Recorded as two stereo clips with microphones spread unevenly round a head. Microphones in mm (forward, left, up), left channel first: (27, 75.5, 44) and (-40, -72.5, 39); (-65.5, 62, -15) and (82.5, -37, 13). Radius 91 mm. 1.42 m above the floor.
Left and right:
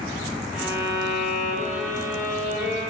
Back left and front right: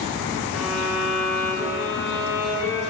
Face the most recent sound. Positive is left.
turn(degrees=115)